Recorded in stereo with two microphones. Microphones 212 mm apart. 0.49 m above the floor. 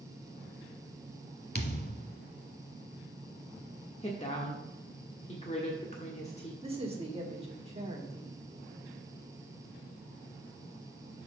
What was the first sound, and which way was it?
A thud, 50° left (ahead or behind).